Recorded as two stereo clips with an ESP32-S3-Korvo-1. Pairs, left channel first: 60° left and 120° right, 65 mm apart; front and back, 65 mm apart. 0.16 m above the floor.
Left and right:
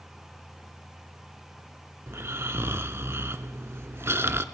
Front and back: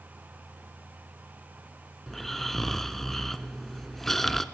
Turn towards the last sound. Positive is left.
turn(degrees=-85)